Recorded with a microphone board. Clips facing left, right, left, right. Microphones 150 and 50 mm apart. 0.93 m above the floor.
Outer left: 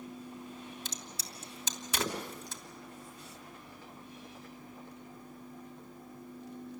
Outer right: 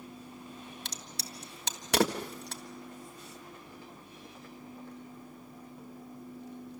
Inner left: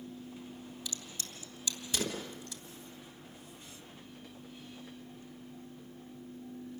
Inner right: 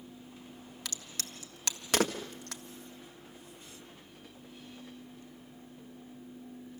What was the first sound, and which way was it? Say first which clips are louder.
A crack: outer right 1 dB, inner right 1 dB; 65° right (ahead or behind).